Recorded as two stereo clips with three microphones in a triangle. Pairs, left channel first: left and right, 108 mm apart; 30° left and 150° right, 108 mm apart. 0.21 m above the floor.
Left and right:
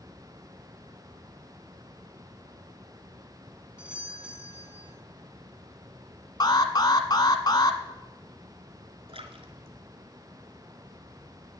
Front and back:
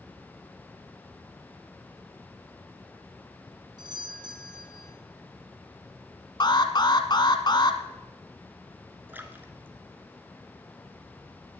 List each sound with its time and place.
3.8 s a doorbell: 165° right, 2.5 m
6.4 s an alarm: 55° left, 1.3 m
9.1 s a splash: 80° right, 1.6 m